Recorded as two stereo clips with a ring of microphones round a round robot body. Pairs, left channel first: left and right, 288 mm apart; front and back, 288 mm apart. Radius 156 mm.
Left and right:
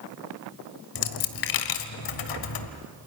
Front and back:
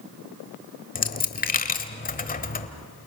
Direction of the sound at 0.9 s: 60° left.